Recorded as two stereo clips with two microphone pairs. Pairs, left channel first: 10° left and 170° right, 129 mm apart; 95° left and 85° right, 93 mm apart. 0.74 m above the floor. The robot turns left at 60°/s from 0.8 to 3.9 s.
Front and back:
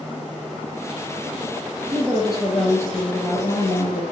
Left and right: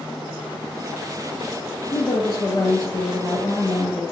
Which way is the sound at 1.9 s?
130° left.